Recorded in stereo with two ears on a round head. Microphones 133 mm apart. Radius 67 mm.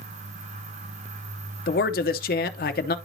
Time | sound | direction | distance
1.7 | a man speaking | 65° left (ahead or behind) | 0.7 m